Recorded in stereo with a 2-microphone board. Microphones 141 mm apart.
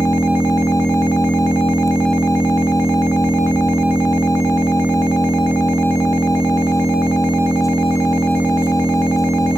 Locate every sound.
0.0 s an engine running: 20° left (ahead or behind)